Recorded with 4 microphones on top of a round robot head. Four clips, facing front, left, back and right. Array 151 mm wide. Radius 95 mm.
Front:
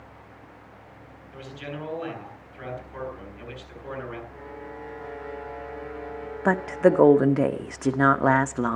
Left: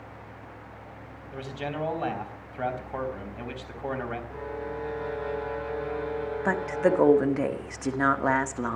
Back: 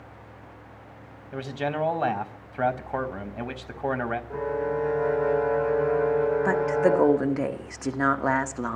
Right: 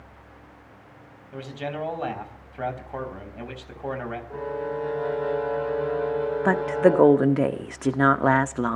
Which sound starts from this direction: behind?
A man speaking, at 1.3 s.